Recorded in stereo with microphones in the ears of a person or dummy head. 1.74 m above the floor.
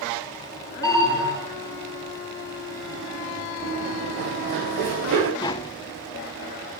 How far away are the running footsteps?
About 3 m.